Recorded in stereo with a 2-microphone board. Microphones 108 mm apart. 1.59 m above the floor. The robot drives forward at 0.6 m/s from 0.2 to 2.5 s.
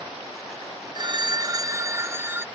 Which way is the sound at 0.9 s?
40° right (ahead or behind).